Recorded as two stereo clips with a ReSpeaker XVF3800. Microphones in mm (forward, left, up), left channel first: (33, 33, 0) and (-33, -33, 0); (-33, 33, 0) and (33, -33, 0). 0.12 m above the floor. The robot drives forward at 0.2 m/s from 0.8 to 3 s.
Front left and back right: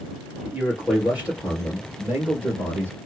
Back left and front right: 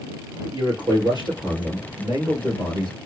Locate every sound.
0.4 s a man speaking: 60° right, 2.5 m; by 3.0 s 70° right, 2.5 m